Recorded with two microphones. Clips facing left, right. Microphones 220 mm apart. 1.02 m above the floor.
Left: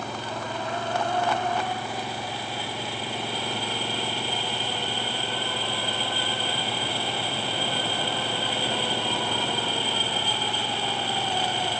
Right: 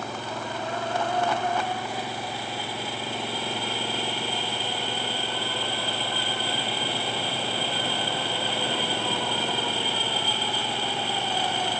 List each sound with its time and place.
0.0 s an engine running: 5° right (ahead or behind)